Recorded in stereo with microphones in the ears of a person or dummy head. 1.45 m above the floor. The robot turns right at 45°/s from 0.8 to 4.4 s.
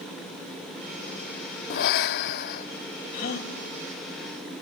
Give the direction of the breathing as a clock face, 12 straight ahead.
10 o'clock.